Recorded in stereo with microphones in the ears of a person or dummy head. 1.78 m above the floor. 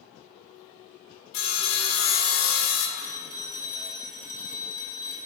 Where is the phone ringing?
45° left (ahead or behind), 1.0 m.